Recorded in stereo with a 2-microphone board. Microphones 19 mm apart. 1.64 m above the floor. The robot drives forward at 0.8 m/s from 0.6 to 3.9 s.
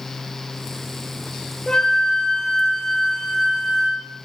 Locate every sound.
1.7 s a flute: 30° left (ahead or behind), 0.9 m; by 4.0 s 15° left (ahead or behind), 1.8 m